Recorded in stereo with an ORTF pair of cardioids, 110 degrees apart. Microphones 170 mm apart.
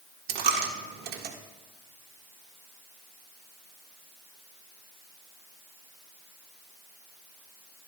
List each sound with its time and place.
0.3 s a dropped coin: 70° right, 1.5 m